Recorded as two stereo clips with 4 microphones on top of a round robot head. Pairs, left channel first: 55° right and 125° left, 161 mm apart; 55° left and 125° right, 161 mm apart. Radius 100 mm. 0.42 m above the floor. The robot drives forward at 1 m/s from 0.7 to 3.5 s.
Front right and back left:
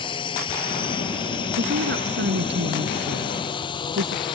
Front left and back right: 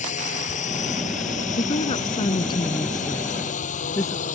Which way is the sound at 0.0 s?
5° left.